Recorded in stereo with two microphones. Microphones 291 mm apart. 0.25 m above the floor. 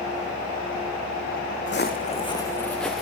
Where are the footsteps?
45° left (ahead or behind), 0.7 m; by 3.0 s centre (ahead or behind), 1.4 m.